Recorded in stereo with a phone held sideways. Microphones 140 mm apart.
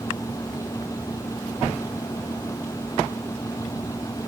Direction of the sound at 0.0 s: 25° left (ahead or behind).